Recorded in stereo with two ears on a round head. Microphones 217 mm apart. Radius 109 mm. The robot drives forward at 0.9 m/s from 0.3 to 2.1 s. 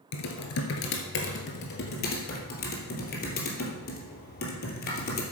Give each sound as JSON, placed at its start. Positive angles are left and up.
{"t": 0.1, "sound": "typing on a keyboard", "side_deg": 75, "distance_m": 1.9}